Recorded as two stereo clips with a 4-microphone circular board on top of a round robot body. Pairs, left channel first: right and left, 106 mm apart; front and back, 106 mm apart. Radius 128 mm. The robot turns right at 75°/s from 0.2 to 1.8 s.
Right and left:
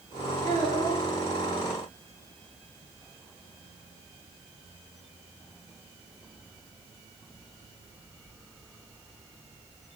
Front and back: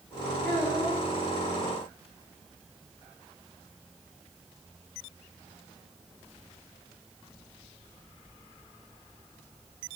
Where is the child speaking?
75° left, 10 m; by 1.0 s 120° left, 10 m.